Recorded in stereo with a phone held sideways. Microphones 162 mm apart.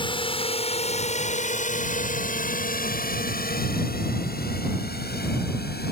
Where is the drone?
30° left (ahead or behind); by 5.9 s 80° left.